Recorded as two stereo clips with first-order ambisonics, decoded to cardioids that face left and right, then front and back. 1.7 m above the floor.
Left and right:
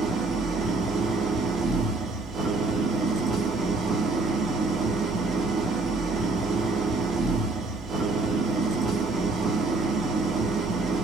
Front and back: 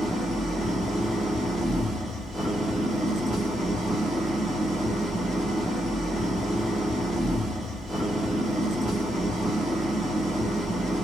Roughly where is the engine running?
Behind right.